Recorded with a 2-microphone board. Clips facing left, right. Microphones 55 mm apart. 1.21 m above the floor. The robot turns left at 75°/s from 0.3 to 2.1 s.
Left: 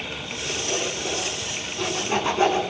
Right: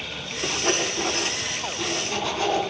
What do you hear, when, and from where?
0.4 s sawing: 80° right, 8 m; by 2.6 s 25° left (ahead or behind), 8 m